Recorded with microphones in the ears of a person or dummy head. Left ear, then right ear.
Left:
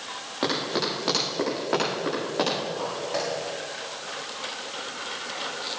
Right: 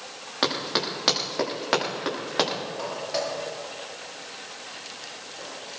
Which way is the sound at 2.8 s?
20° right (ahead or behind).